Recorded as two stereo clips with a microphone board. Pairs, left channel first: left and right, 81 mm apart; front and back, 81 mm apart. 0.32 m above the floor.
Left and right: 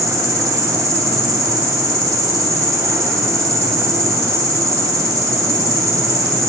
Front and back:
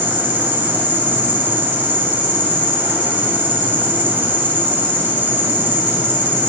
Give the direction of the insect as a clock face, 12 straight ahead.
4 o'clock.